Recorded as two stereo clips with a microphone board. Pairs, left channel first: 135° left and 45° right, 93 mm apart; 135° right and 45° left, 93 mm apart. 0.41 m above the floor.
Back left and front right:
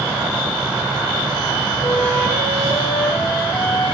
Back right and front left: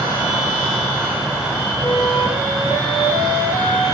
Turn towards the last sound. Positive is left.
turn(degrees=-150)